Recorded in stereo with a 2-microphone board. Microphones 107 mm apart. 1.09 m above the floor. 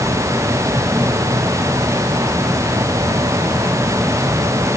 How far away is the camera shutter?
No camera shutter in this recording.